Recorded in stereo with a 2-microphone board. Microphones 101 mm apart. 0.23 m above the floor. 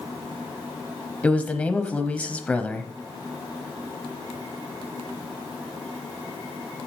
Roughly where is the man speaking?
Centre.